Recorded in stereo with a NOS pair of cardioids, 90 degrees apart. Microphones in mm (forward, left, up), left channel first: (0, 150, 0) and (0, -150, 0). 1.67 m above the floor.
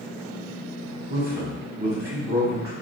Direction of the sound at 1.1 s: 30° right.